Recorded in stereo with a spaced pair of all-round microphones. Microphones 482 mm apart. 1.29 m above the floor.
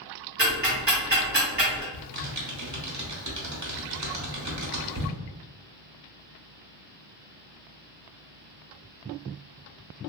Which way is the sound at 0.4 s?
20° right (ahead or behind).